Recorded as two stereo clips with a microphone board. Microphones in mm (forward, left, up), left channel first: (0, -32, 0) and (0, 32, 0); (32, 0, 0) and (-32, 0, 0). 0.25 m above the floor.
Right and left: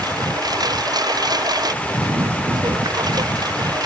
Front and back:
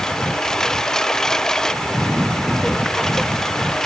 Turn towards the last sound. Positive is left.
turn(degrees=85)